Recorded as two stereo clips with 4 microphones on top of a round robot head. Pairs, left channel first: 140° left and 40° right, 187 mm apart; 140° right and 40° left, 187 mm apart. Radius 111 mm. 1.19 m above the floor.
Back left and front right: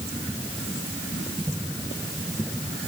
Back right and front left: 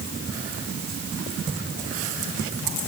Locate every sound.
Only background noise.